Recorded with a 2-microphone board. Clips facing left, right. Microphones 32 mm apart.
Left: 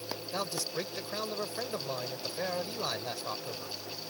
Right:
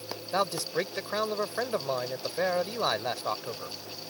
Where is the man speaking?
35° right (ahead or behind).